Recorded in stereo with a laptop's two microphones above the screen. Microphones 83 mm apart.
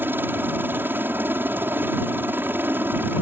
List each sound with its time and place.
0.0 s a helicopter: 25° right (ahead or behind)